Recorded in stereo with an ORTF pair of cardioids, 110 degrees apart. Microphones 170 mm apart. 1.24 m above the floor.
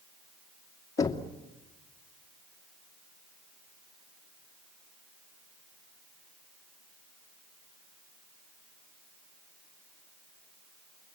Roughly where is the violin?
I don't hear a violin.